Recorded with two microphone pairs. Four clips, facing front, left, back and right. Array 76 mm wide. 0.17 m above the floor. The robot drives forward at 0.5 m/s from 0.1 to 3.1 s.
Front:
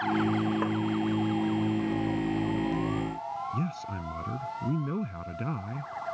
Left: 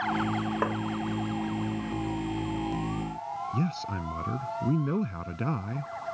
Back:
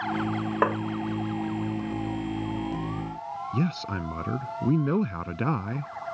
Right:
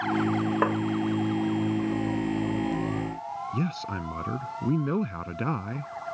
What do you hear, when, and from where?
0.6 s tapping: 160° right
3.5 s a man speaking: 160° right